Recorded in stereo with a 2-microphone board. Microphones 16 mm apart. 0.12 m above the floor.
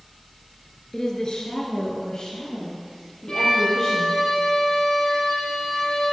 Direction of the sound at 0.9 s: 40° left (ahead or behind).